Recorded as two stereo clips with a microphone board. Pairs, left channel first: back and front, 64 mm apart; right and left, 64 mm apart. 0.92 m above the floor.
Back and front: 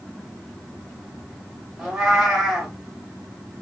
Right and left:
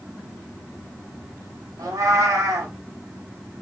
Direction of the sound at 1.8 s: 85° left.